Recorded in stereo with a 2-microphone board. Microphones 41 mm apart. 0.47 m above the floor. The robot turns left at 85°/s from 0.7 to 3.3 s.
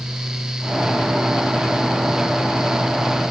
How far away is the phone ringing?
I don't hear a phone ringing.